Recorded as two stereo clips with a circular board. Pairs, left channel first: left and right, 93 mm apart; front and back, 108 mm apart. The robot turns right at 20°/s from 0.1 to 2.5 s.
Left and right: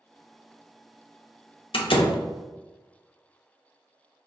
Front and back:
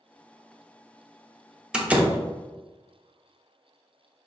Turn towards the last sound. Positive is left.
turn(degrees=115)